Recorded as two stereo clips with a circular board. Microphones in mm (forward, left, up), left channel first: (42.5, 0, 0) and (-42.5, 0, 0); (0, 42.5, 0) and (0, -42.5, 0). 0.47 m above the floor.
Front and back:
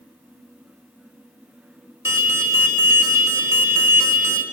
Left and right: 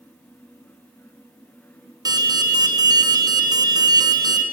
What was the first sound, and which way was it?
An alarm, 130° right.